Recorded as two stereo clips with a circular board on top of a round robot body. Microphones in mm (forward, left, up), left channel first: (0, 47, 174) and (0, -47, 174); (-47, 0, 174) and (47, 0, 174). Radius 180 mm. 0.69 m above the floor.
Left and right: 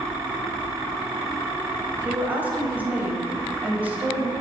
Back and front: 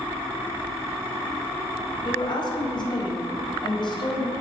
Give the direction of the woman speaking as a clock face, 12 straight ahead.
5 o'clock.